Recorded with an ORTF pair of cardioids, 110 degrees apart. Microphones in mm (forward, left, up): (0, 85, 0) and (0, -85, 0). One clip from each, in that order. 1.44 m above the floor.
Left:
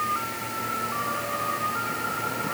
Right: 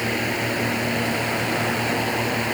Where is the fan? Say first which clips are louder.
Right 4 dB; 70° right.